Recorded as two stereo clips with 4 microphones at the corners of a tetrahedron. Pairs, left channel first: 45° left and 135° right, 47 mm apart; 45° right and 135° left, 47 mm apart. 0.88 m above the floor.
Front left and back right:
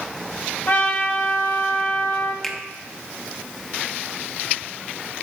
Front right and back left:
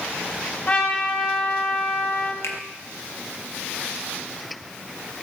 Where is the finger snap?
35° right, 0.7 m.